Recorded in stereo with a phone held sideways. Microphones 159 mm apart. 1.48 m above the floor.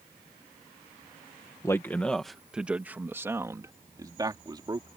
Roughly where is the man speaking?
Centre.